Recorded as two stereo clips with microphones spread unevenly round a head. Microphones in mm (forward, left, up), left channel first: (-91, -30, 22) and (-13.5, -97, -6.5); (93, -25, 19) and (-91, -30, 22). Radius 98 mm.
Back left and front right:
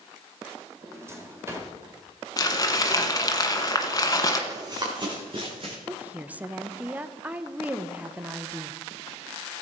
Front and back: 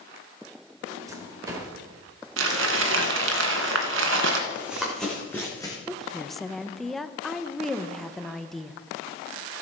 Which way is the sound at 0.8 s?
105° right.